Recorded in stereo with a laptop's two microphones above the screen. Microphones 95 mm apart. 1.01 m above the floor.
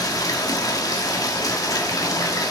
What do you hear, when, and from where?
0.0 s running water: 40° left (ahead or behind), 1.4 m